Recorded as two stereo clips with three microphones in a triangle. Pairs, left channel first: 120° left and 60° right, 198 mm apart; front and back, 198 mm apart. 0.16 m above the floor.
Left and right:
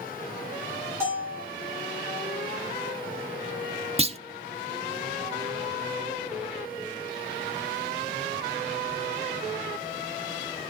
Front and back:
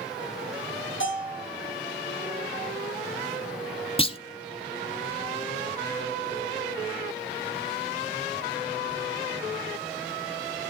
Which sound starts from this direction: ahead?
A bell, at 1.0 s.